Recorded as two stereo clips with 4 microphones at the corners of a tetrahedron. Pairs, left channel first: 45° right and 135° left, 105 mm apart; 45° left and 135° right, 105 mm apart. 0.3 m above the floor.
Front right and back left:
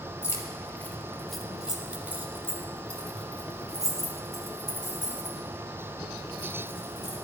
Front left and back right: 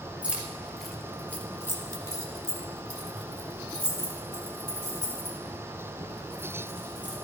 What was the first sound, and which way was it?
Keys jangling, 70° right.